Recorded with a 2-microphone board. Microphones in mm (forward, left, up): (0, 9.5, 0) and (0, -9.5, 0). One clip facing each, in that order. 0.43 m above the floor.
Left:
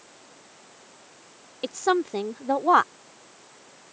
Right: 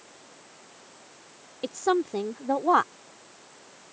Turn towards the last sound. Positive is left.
turn(degrees=15)  # may be behind; listen again after turning